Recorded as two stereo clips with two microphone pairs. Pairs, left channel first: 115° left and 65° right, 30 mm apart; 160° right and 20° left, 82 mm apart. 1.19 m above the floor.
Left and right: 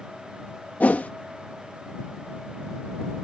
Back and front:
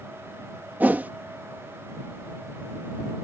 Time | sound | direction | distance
0.8 | a whoosh | 90° left | ?